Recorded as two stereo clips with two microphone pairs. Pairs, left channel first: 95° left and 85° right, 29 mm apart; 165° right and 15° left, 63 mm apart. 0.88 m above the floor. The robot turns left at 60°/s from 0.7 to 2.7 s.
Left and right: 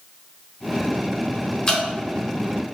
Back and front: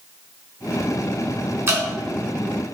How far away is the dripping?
About 0.8 m.